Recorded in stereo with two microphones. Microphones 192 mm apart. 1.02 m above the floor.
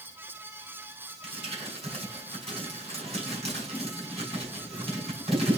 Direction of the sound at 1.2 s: 30° right (ahead or behind).